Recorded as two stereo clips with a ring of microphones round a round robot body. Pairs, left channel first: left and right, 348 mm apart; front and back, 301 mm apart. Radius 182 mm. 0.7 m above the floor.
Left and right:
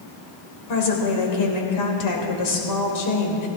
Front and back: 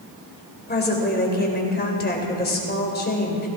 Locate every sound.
0.7 s a woman speaking: 60° left, 3.5 m